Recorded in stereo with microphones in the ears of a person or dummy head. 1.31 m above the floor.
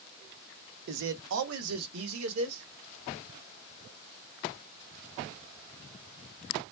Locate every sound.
0.9 s a man speaking: 55° right (ahead or behind), 0.6 m; by 2.6 s 85° right, 1.5 m